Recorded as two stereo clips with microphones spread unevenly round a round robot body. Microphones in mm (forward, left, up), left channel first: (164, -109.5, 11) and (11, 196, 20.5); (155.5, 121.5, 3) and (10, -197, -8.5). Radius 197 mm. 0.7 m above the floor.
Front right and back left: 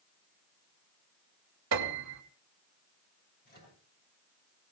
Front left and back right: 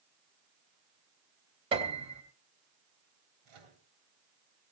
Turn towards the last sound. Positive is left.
turn(degrees=-130)